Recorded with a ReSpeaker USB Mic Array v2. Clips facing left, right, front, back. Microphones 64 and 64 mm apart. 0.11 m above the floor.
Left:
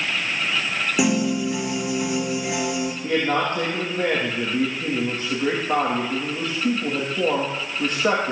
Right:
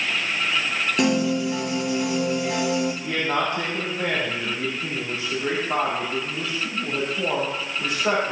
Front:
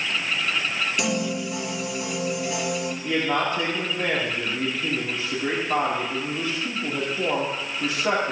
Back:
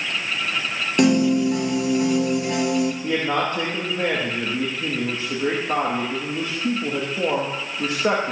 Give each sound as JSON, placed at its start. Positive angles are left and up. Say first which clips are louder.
{"t": 1.0, "sound": "a piano", "louder": "even, back 13 dB", "azimuth_deg": 170, "distance_m": 1.7}
{"t": 3.0, "sound": "a man speaking", "louder": "left 2 dB, back 1 dB", "azimuth_deg": 140, "distance_m": 5.0}